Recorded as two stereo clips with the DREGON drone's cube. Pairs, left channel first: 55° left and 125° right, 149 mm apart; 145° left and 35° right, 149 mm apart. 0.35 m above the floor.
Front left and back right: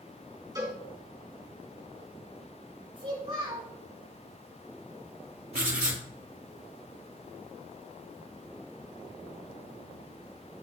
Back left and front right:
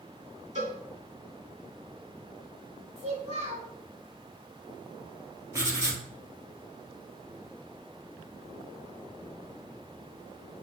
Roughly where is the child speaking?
Right.